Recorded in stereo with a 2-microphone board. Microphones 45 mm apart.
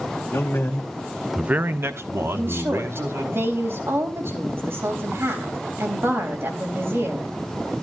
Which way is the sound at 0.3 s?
75° left (ahead or behind).